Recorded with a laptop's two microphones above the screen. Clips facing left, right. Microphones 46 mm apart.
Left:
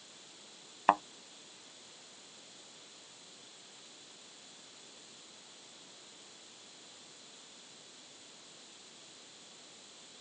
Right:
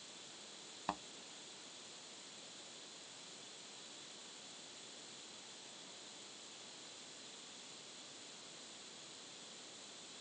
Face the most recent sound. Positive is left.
turn(degrees=55)  # may be behind; listen again after turning